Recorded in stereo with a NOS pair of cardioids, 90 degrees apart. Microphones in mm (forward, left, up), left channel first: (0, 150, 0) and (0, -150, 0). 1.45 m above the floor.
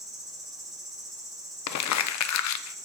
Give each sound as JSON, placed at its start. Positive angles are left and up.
{"t": 0.0, "sound": "an insect", "azimuth_deg": 0, "distance_m": 2.0}
{"t": 1.7, "sound": "crumpling", "azimuth_deg": 65, "distance_m": 0.6}